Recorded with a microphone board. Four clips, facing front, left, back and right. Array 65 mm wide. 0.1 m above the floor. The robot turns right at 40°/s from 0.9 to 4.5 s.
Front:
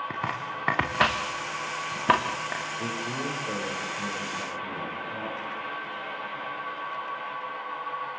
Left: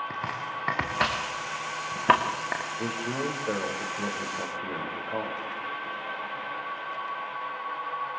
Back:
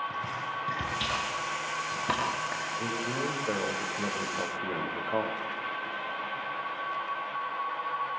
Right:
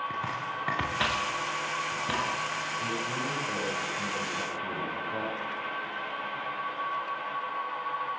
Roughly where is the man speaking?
Left.